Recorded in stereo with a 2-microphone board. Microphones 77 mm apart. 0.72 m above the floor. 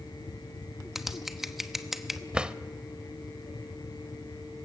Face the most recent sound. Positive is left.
turn(degrees=-10)  # may be behind; listen again after turning